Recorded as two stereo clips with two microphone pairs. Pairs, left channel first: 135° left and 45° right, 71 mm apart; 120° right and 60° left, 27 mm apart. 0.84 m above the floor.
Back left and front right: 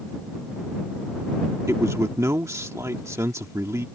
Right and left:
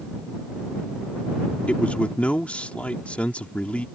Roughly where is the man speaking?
Right.